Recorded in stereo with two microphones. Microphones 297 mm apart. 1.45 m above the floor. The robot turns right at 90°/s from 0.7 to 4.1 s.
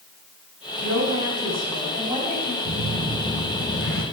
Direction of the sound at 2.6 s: 60° right.